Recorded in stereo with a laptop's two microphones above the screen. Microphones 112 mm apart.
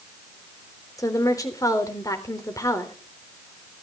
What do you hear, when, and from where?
1.0 s a woman speaking: 30° left (ahead or behind), 3.5 m